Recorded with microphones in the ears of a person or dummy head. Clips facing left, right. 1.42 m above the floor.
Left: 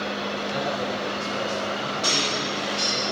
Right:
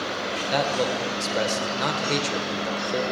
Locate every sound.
0.5 s a man speaking: 70° right (ahead or behind), 1.4 m